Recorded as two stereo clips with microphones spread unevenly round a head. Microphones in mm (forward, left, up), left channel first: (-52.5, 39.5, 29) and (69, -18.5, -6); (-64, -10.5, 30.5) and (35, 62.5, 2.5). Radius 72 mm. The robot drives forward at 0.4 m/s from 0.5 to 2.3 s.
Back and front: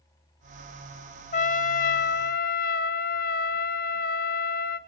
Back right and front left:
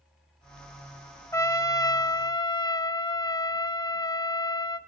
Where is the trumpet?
155° left, 0.8 m; by 4.8 s 165° left, 1.1 m.